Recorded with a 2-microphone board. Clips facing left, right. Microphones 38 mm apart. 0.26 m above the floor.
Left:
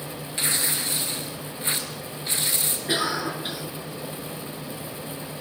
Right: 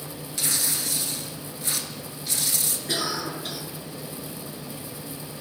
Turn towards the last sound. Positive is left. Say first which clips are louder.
# left 4 dB
turn(degrees=25)  # may be behind; listen again after turning